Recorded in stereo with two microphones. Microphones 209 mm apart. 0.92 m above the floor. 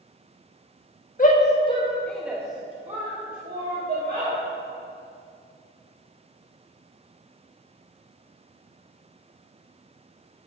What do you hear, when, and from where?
1.2 s a shout: 40° left (ahead or behind), 1.1 m; by 4.3 s 55° right (ahead or behind), 2.0 m